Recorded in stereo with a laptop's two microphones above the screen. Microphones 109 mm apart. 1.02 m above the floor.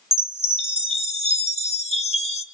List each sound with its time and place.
0.1 s a chime: 70° left (ahead or behind), 1.5 m